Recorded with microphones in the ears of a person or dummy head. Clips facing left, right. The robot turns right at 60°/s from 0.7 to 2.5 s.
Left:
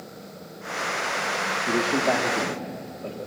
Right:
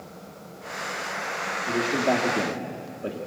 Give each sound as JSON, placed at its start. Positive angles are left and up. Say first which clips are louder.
{"t": 1.7, "sound": "a man speaking", "louder": "even", "azimuth_deg": 150, "distance_m": 2.5}